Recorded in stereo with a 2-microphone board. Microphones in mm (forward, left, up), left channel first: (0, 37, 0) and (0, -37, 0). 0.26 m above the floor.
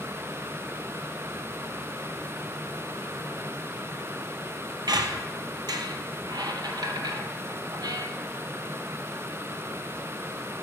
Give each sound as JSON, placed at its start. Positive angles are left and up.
{"t": 4.9, "sound": "a squeak", "side_deg": -70, "distance_m": 0.6}